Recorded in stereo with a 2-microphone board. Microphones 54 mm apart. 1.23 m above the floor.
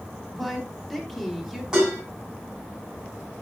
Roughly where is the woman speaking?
Centre.